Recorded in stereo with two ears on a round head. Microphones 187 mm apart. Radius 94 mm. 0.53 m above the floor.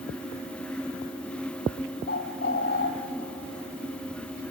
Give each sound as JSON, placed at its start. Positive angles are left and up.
{"t": 2.1, "sound": "a bird", "side_deg": 50, "distance_m": 1.9}